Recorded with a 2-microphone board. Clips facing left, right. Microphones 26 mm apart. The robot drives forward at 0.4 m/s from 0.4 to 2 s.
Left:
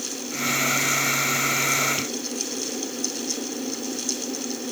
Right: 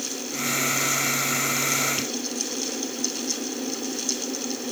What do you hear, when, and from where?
Only background noise.